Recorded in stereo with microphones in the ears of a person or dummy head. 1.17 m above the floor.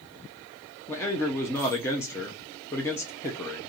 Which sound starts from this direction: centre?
A man speaking, at 0.9 s.